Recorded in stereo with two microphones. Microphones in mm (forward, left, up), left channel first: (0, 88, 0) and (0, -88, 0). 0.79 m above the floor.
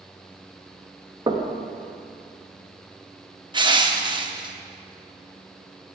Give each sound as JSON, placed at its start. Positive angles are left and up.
{"t": 1.3, "sound": "knocking", "side_deg": -25, "distance_m": 0.7}
{"t": 3.5, "sound": "crushing", "side_deg": -25, "distance_m": 0.6}